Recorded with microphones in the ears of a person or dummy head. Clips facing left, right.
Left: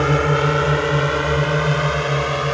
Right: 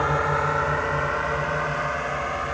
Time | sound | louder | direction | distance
0.0 | a drone | left 7 dB | 35° left (ahead or behind) | ?